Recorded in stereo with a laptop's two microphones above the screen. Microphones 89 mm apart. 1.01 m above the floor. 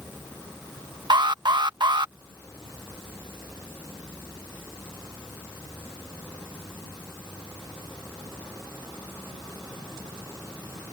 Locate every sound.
1.1 s an alarm: 55° right (ahead or behind)